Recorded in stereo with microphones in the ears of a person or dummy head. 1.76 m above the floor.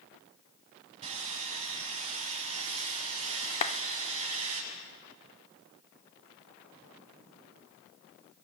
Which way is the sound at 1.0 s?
35° right (ahead or behind).